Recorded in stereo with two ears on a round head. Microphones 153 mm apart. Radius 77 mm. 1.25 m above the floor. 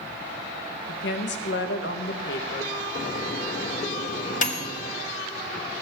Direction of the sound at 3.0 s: 45° left (ahead or behind).